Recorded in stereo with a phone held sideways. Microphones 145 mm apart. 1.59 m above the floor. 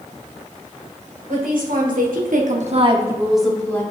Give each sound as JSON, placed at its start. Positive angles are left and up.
{"t": 1.3, "sound": "a woman speaking", "side_deg": -80, "distance_m": 2.0}